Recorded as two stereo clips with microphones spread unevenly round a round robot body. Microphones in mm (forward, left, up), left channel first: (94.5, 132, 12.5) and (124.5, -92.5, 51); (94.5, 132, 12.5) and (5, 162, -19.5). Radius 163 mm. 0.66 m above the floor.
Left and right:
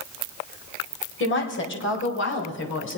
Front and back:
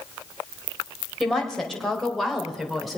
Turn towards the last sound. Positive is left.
turn(degrees=80)